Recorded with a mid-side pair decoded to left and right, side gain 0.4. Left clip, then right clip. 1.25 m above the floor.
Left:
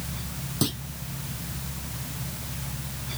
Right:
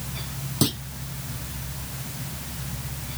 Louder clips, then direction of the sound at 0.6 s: Right 4 dB; 20° right.